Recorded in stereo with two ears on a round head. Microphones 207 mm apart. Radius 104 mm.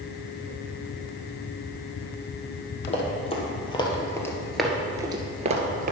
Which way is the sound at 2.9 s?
30° left (ahead or behind).